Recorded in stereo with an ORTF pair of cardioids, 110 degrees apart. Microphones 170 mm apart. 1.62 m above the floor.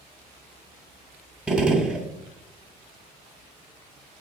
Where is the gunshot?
5° right, 0.6 m.